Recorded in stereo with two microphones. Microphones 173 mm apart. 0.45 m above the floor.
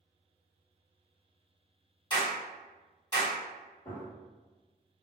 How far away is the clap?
About 1.7 m.